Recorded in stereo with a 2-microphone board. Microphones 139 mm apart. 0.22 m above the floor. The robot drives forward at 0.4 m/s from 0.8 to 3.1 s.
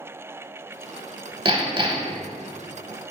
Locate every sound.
1.4 s hammering: 35° right (ahead or behind), 0.5 m